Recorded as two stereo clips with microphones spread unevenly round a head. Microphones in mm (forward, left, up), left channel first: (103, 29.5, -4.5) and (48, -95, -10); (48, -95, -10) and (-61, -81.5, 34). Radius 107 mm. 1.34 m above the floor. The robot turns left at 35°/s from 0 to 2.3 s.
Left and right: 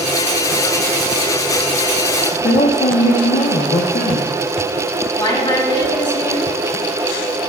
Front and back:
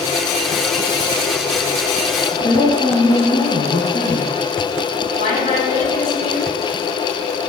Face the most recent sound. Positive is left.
turn(degrees=5)